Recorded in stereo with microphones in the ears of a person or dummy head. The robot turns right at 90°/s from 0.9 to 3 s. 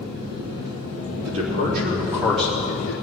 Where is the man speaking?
95° right, 3.5 m; by 2.9 s 60° left, 3.5 m.